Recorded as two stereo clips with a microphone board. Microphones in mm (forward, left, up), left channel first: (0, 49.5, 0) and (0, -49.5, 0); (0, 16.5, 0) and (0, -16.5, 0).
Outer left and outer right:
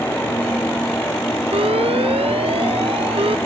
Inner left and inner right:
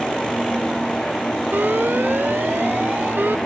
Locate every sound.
1.5 s an alarm: 80° right